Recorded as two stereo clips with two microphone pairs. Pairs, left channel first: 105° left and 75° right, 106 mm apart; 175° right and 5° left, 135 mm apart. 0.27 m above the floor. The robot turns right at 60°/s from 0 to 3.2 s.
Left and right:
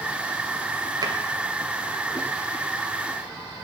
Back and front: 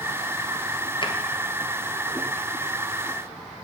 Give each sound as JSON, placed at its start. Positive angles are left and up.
{"t": 1.0, "sound": "a drawer", "azimuth_deg": -125, "distance_m": 1.8}